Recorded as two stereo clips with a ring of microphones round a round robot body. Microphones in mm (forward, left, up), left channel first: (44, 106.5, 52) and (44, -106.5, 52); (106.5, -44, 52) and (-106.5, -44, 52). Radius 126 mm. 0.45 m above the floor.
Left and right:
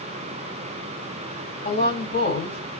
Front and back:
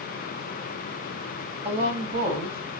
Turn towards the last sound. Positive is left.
turn(degrees=125)